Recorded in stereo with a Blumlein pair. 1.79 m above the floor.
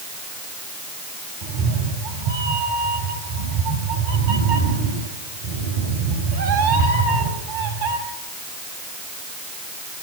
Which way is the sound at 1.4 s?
55° right.